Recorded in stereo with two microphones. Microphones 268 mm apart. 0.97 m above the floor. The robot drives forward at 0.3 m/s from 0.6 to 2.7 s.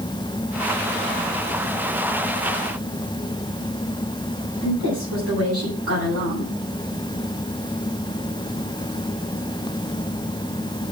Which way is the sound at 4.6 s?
60° right (ahead or behind).